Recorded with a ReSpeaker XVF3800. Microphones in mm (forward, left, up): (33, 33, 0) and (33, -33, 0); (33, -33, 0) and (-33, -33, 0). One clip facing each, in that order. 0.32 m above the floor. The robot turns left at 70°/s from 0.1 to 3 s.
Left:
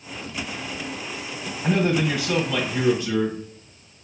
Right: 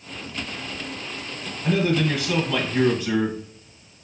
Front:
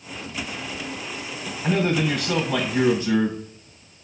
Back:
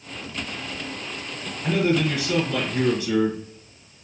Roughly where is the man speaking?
Left.